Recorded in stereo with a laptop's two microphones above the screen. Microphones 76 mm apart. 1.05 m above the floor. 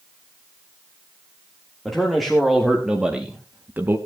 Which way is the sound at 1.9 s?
5° left (ahead or behind).